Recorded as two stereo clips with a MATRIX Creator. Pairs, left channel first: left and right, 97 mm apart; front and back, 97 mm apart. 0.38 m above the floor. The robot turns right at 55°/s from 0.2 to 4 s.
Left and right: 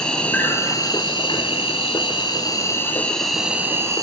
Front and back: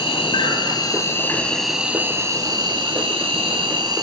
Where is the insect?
10° left, 1.1 m; by 4.0 s 140° right, 1.1 m.